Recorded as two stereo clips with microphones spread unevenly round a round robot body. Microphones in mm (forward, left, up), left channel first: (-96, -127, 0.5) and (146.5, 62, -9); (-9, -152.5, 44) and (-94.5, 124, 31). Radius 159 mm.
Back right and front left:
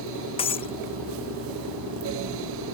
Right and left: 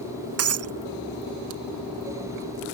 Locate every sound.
0.4 s breaking glass: 145° left